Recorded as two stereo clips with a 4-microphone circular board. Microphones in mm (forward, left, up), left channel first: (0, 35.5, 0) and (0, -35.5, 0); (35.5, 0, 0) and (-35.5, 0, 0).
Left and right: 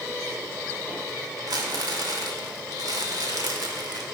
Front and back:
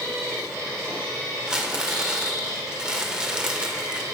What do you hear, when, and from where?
1.5 s crumpling: 105° right, 1.3 m